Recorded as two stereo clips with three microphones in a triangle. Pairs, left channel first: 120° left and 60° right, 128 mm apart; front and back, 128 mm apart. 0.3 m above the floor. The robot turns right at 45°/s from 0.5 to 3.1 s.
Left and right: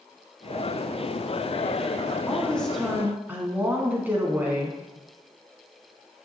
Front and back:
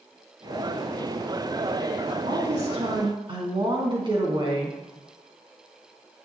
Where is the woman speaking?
170° right, 3.5 m; by 4.8 s 135° right, 3.5 m.